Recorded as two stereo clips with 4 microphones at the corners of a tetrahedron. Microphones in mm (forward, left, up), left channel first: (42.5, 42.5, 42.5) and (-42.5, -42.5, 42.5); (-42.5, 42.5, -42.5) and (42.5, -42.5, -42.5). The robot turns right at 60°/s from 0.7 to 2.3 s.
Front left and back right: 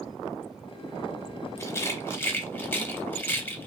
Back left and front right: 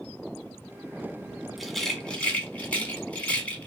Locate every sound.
1.6 s a rattle: 40° left, 0.6 m; by 3.7 s 85° left, 0.6 m